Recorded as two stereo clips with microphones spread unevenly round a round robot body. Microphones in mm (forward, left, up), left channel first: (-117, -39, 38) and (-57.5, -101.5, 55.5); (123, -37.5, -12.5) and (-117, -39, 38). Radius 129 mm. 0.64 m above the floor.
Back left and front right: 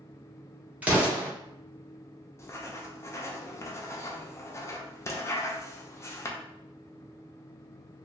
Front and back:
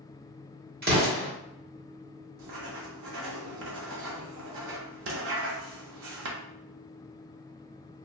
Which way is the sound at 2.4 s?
155° left.